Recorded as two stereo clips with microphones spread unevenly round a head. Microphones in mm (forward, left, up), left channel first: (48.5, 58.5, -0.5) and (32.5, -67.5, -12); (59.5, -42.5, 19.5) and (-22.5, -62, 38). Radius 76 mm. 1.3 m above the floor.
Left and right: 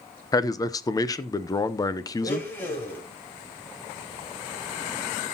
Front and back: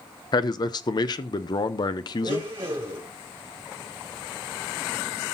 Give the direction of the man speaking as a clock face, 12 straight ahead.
11 o'clock.